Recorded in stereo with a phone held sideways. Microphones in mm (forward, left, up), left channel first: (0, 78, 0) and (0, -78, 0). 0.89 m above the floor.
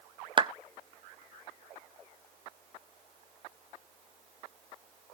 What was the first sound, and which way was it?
A clap, 30° right (ahead or behind).